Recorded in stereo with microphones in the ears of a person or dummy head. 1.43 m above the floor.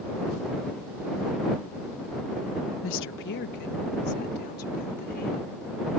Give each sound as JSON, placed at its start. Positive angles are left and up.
{"t": 2.8, "sound": "a woman speaking", "side_deg": 70}